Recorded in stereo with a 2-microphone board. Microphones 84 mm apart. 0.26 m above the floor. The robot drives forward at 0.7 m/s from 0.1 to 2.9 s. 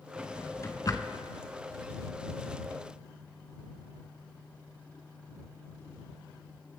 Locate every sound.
0.2 s a drawer: 25° left (ahead or behind), 1.1 m; by 1.3 s 65° left (ahead or behind), 0.6 m